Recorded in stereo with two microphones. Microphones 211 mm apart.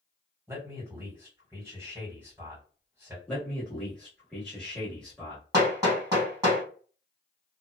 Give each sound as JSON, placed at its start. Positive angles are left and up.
{"t": 0.5, "sound": "a man speaking", "side_deg": -10, "distance_m": 1.9}
{"t": 3.3, "sound": "a man speaking", "side_deg": 5, "distance_m": 1.2}
{"t": 5.5, "sound": "hammering", "side_deg": -15, "distance_m": 1.9}